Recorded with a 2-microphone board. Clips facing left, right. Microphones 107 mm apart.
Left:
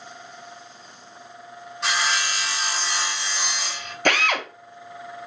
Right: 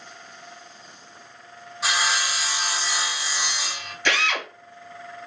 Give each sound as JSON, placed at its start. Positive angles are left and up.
{"t": 1.8, "sound": "sawing", "side_deg": -5, "distance_m": 0.6}
{"t": 4.0, "sound": "a drill", "side_deg": 55, "distance_m": 0.6}